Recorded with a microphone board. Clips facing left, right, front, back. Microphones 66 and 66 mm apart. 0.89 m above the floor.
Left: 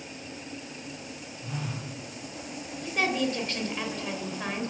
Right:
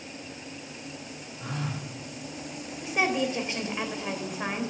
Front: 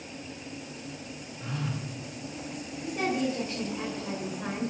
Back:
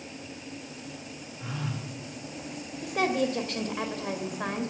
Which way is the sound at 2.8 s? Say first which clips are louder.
Right 1 dB, back 2 dB; 165° right.